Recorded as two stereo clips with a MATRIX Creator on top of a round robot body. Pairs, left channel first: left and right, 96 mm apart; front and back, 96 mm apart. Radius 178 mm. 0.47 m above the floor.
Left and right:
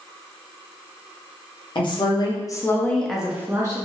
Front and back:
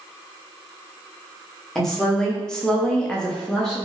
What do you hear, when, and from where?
1.8 s a woman speaking: 85° left, 1.1 m; by 3.9 s 80° right, 0.9 m